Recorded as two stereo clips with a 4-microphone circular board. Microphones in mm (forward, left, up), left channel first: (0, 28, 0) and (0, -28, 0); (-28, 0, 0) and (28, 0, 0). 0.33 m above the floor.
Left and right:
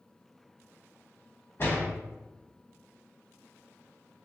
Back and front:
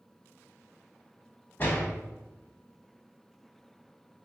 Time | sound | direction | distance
1.6 | a door slam | 130° left | 1.3 m